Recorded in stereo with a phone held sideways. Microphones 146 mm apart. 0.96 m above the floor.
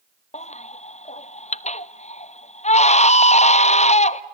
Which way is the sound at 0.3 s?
50° left (ahead or behind).